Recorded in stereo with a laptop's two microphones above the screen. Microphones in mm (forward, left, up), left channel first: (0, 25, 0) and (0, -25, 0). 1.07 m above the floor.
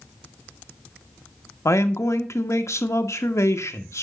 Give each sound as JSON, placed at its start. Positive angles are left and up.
{"t": 1.6, "sound": "a man speaking", "side_deg": 70, "distance_m": 1.2}